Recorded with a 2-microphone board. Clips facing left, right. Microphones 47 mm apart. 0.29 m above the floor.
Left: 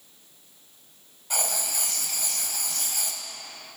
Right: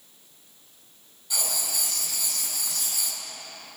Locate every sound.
1.3 s writing: 50° left (ahead or behind), 1.1 m